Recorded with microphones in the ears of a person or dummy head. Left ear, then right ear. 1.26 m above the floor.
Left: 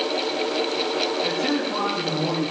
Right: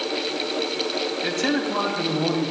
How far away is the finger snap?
I don't hear a finger snap.